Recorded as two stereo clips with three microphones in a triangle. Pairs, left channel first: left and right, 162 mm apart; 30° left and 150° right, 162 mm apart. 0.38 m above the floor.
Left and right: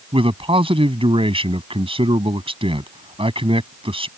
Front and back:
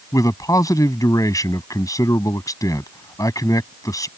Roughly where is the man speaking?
Ahead right.